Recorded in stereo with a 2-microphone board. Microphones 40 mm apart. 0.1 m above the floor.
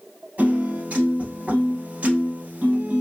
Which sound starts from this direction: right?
A piano, at 0.4 s.